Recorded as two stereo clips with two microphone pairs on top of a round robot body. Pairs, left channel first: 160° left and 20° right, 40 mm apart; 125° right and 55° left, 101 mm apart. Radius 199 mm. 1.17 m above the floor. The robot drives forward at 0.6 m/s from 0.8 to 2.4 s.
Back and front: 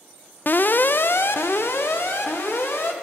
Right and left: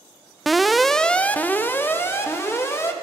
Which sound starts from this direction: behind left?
An alarm, at 0.5 s.